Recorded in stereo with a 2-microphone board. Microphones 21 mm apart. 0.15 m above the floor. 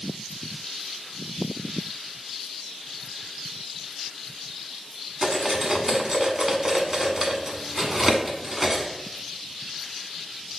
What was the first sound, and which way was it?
Cutlery clinking, 25° right (ahead or behind).